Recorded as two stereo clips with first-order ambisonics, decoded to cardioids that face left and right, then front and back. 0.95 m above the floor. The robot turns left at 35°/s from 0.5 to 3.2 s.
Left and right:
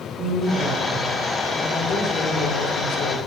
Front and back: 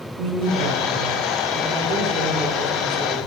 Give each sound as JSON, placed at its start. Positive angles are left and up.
{"t": 0.2, "sound": "a woman speaking", "azimuth_deg": -170, "distance_m": 2.0}